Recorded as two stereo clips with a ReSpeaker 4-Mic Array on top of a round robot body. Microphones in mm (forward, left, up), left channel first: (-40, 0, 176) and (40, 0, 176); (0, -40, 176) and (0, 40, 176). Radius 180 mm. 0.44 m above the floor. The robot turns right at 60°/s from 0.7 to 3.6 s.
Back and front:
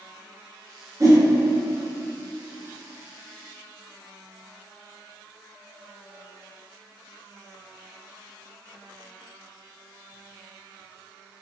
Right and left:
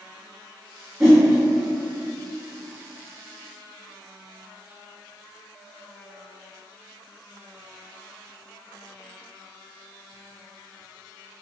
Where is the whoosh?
5° right, 1.7 m; by 1.2 s 10° left, 1.7 m.